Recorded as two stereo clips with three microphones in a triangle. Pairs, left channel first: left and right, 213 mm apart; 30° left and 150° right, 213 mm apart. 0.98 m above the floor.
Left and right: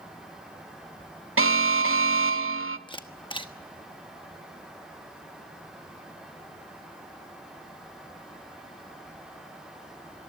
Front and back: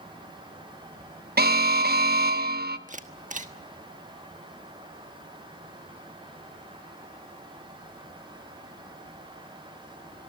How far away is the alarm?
About 1.0 m.